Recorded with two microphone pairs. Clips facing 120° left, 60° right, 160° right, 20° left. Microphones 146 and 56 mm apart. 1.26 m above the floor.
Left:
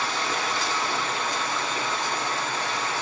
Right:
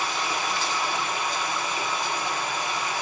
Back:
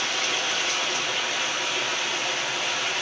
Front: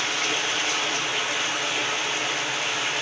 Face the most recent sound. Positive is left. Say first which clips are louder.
# even, front 1 dB
turn(degrees=100)